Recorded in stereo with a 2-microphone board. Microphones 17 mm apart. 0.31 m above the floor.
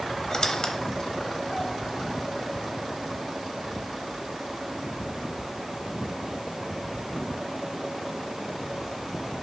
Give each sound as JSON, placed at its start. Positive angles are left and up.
{"t": 0.3, "sound": "a squeak", "side_deg": 40, "distance_m": 0.7}